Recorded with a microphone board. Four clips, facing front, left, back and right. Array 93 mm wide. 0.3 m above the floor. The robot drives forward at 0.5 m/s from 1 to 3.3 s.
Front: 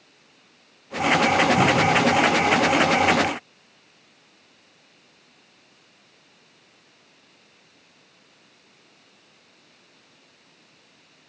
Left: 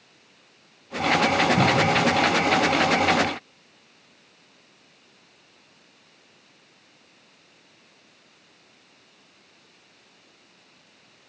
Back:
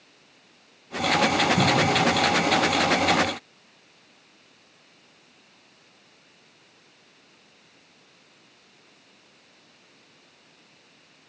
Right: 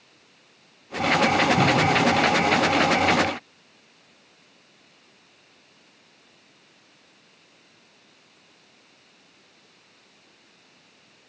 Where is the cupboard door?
120° left, 3.5 m; by 2.0 s 125° left, 4 m.